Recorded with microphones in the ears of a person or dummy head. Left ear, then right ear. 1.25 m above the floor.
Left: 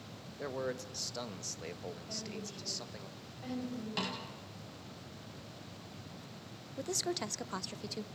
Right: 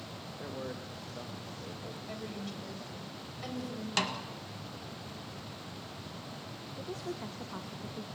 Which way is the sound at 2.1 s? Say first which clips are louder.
Right 2 dB; 60° right (ahead or behind).